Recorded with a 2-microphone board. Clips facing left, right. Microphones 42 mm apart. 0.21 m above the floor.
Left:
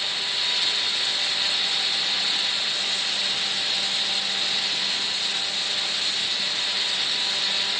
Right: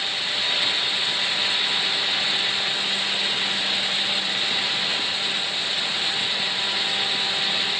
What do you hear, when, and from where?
Only background noise.